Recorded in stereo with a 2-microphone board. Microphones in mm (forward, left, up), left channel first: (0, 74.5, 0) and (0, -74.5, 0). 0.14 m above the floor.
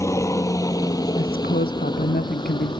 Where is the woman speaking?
75° left (ahead or behind).